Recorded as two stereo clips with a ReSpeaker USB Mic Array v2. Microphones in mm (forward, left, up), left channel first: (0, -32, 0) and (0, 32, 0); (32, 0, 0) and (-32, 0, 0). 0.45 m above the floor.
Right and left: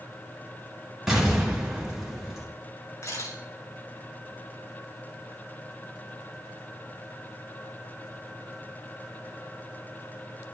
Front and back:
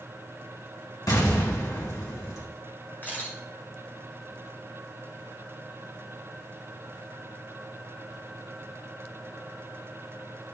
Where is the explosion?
10° left, 6.5 m.